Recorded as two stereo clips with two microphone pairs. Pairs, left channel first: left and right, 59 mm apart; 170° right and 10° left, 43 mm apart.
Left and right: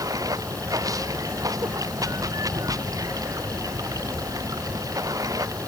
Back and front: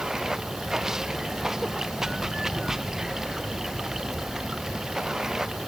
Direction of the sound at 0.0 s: 70° right.